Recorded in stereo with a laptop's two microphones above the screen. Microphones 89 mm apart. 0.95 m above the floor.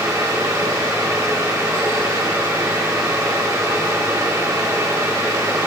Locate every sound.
0.0 s a fan: 35° right (ahead or behind), 1.2 m